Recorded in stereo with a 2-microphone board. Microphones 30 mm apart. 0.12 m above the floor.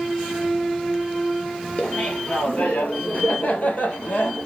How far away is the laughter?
About 2.0 m.